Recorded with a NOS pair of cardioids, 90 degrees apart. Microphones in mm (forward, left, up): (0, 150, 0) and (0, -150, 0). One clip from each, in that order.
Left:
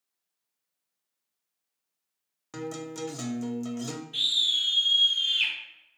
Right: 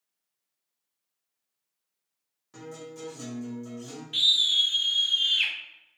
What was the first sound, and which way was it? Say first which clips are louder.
A guitar: left 5 dB; 55° left.